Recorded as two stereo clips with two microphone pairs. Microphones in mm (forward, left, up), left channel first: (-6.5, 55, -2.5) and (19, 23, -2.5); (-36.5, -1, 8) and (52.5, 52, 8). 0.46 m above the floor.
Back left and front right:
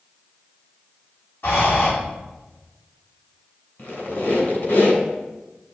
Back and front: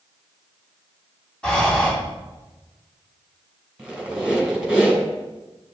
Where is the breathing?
130° left, 2.5 m.